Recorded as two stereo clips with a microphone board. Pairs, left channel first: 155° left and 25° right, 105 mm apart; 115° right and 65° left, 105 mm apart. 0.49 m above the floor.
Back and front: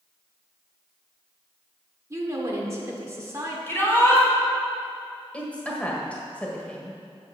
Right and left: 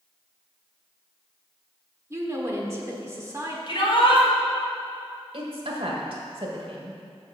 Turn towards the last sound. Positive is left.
turn(degrees=80)